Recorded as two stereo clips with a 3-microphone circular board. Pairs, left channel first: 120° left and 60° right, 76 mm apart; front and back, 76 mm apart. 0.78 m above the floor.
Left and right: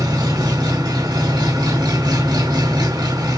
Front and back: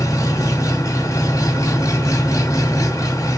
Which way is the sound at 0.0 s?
40° right.